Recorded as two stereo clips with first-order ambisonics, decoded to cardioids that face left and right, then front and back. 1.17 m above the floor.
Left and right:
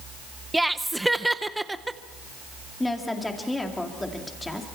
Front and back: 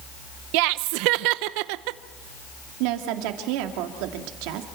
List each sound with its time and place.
0.5 s laughter: 175° right, 0.6 m
2.8 s a woman speaking: 175° left, 2 m